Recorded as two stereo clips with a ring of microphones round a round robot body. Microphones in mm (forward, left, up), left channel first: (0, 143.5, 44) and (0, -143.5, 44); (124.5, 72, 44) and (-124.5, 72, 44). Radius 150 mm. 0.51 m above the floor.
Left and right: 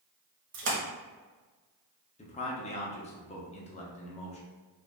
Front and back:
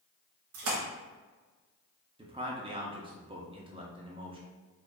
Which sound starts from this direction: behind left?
A man speaking, at 2.2 s.